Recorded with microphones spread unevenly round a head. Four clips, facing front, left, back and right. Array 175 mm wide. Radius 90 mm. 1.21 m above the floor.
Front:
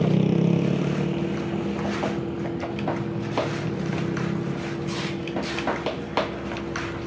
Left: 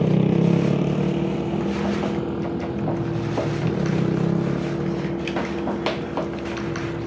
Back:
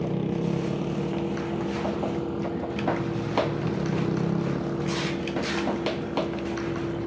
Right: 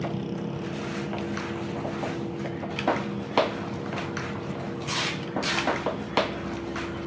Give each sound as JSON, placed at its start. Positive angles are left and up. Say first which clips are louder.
{"t": 0.0, "sound": "a motorcycle", "louder": "left 12 dB, front 6 dB", "azimuth_deg": 60}